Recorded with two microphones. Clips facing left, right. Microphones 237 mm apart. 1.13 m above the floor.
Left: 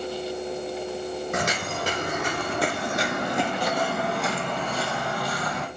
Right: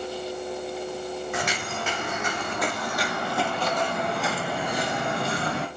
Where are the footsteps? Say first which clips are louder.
Left 2 dB; 50° left (ahead or behind), 2.5 m; by 5.7 s 35° right (ahead or behind), 1.6 m.